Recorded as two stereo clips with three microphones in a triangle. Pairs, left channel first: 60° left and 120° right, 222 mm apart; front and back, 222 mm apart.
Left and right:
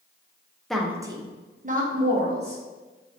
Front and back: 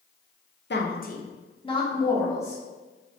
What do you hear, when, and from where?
0.7 s a woman speaking: 30° right, 0.6 m; by 2.6 s 80° right, 1.3 m